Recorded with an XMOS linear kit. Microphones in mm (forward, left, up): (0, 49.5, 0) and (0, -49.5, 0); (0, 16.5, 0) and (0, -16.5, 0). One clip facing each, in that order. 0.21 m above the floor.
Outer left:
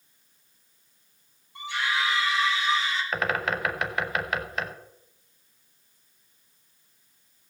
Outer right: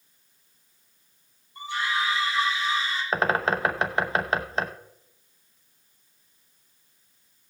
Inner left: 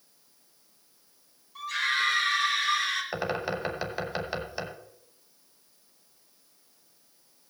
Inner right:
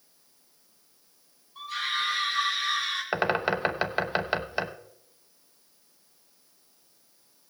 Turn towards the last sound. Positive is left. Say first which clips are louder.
# outer right 6 dB, inner right 5 dB
turn(degrees=-30)  # may be behind; listen again after turning